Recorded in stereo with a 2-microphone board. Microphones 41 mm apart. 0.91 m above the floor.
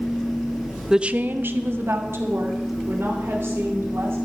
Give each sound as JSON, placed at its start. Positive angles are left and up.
{"t": 0.9, "sound": "a woman speaking", "side_deg": -10, "distance_m": 0.6}